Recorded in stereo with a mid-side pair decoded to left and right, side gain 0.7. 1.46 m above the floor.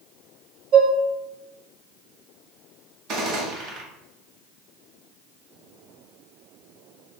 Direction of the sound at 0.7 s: 70° right.